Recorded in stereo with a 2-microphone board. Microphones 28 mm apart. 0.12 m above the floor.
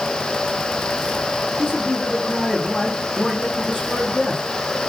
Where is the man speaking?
5° right (ahead or behind), 4.5 m.